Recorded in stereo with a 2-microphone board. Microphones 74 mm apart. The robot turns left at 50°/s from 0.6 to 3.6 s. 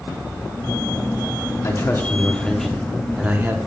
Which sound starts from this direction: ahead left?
A man speaking, at 1.6 s.